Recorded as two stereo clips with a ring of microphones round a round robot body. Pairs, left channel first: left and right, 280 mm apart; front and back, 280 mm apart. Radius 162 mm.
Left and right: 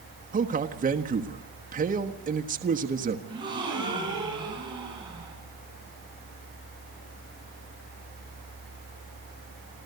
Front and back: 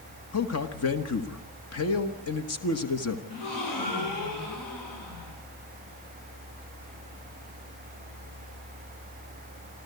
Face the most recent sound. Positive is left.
turn(degrees=-15)